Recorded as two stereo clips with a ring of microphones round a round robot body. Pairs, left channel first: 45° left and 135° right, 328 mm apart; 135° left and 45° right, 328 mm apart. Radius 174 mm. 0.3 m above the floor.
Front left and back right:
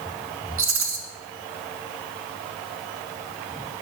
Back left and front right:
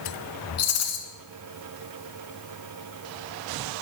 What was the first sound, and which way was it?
A rattle, 175° left.